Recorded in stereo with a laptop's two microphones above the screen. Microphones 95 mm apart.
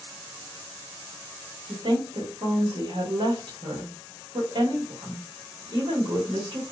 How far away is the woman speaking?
About 1.7 m.